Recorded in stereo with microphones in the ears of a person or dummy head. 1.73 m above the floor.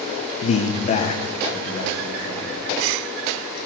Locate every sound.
0.4 s a man speaking: 30° left (ahead or behind), 0.7 m; by 2.6 s 35° left (ahead or behind), 4 m